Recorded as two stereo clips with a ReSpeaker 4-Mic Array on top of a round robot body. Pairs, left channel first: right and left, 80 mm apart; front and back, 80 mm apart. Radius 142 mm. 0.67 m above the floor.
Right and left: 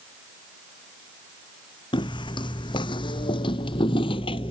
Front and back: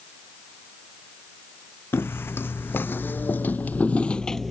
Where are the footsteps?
65° right; by 4.5 s 90° right.